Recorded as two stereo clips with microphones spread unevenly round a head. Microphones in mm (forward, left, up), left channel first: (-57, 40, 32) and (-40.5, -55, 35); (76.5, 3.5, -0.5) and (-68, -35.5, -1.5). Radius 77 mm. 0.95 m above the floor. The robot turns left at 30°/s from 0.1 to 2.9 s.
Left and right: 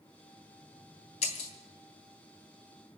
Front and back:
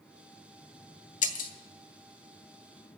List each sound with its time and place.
1.2 s breaking glass: 60° left, 1.4 m; by 1.5 s 50° left, 1.4 m